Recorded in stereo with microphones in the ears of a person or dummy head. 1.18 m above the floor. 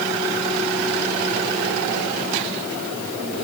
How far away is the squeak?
I don't hear a squeak.